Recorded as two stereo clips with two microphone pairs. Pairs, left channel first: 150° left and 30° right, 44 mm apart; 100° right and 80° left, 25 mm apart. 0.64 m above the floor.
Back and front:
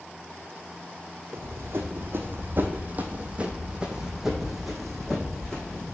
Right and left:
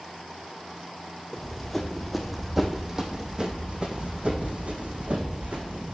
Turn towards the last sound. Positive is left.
turn(degrees=80)